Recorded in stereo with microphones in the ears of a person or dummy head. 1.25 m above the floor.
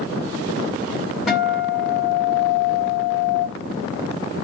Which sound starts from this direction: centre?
A guitar, at 1.3 s.